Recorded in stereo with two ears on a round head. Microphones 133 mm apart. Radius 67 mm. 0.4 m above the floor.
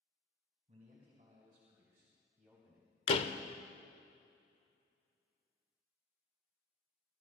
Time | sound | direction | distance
0.7 | a man speaking | 45° right (ahead or behind) | 3 m
3.1 | a door slam | 40° left (ahead or behind) | 0.7 m